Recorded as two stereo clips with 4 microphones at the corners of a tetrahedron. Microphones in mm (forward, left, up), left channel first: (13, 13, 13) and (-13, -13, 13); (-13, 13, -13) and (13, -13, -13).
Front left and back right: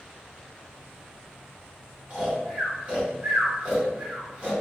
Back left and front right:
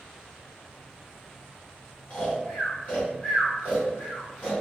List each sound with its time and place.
2.1 s snoring: straight behind, 2.0 m